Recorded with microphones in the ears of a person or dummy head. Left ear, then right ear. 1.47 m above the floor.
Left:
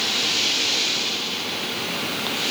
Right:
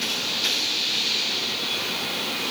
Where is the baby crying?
I don't hear a baby crying.